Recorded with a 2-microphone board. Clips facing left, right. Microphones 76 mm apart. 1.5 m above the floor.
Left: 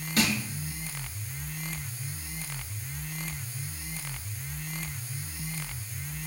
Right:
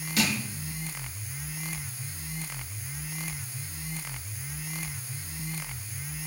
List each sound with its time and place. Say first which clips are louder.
0.2 s crushing: left 1 dB; 45° left (ahead or behind), 8 m